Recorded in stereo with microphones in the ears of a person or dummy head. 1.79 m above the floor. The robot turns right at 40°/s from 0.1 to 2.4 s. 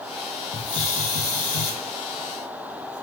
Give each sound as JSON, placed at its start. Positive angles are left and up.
{"t": 0.5, "sound": "a hiss", "azimuth_deg": 45, "distance_m": 0.6}